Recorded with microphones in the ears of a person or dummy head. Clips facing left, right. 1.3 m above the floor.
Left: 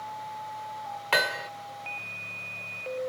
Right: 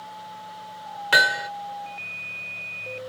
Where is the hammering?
15° right (ahead or behind).